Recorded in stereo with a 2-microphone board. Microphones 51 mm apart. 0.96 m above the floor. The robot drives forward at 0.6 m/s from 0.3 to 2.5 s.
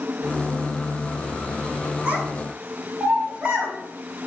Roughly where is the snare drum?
No snare drum in this recording.